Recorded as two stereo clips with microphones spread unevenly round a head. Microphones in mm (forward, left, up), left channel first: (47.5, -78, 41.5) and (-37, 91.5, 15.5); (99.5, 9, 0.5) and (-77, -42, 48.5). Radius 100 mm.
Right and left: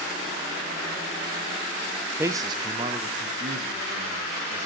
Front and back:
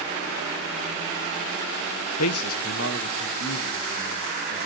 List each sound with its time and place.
2.2 s a man speaking: 35° left, 0.6 m; by 4.7 s 60° left, 2.5 m